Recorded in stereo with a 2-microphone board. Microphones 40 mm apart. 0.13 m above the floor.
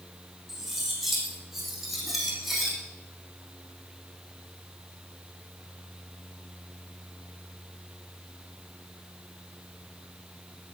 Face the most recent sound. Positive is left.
turn(degrees=-5)  # may be behind; listen again after turning